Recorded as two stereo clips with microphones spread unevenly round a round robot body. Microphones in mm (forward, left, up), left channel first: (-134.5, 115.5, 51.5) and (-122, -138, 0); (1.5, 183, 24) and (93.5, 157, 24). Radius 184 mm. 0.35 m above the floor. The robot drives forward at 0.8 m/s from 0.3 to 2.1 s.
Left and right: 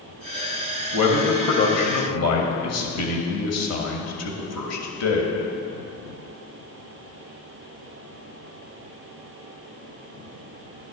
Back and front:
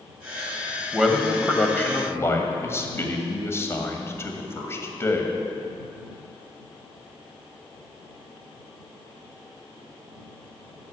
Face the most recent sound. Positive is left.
turn(degrees=105)